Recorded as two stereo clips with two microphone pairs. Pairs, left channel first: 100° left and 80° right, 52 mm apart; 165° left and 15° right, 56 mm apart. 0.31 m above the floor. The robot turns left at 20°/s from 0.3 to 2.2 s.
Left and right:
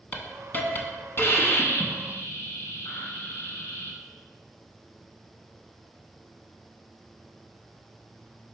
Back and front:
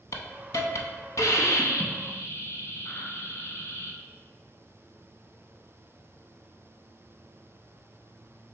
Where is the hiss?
165° left, 0.5 m; by 4.0 s 130° left, 0.5 m.